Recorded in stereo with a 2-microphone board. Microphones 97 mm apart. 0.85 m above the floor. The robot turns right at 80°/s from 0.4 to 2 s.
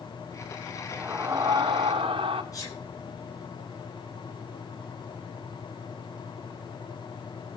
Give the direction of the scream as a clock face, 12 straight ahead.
6 o'clock.